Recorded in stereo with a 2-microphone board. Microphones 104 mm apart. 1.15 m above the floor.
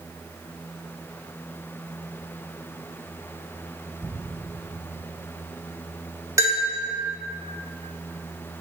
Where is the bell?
30° right (ahead or behind), 2 m.